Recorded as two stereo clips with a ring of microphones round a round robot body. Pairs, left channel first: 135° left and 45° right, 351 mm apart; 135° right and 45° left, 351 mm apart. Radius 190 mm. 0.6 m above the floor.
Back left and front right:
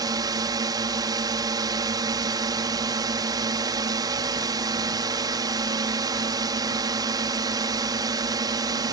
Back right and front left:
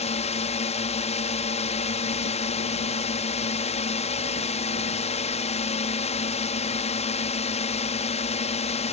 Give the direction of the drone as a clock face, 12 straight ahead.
3 o'clock.